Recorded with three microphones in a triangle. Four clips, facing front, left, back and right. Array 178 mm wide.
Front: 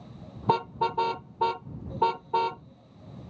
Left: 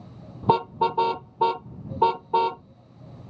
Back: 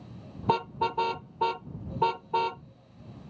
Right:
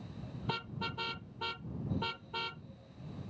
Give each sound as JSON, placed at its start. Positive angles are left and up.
{"t": 0.4, "sound": "a car horn", "azimuth_deg": 90}